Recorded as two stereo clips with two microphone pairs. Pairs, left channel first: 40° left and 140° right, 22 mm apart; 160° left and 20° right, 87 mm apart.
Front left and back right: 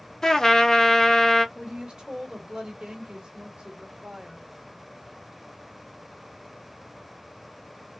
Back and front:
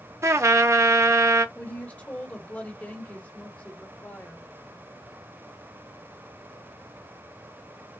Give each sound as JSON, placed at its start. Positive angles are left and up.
{"t": 0.2, "sound": "a trumpet", "azimuth_deg": -5, "distance_m": 0.5}
{"t": 1.6, "sound": "a woman speaking", "azimuth_deg": -130, "distance_m": 1.2}